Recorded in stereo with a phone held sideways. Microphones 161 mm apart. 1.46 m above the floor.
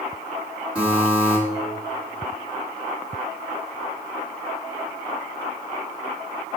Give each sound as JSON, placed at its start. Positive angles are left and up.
{"t": 0.8, "sound": "a buzzer", "side_deg": -10, "distance_m": 1.5}